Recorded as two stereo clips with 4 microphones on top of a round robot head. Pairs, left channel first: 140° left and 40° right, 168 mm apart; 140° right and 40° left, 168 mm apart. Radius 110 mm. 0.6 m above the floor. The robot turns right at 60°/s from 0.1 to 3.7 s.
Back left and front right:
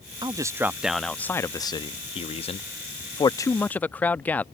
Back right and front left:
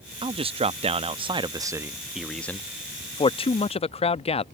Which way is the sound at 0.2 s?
5° left.